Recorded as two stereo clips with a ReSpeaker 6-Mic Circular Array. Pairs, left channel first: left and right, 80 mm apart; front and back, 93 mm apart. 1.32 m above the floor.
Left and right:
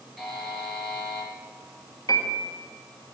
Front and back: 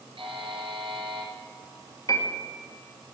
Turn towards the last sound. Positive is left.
turn(degrees=50)